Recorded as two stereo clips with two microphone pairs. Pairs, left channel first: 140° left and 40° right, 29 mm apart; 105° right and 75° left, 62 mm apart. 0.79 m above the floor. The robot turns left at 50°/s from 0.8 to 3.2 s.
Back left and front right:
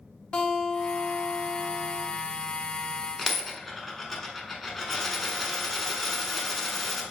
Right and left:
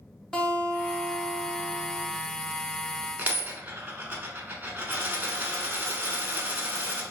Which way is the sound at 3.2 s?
45° left.